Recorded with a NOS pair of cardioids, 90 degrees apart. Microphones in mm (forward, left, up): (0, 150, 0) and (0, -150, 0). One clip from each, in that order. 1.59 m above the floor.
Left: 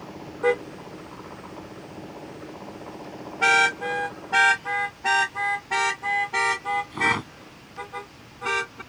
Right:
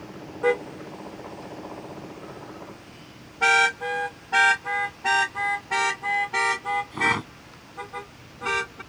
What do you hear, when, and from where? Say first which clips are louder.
0.4 s a car horn: even; 5° left; by 8.8 s straight ahead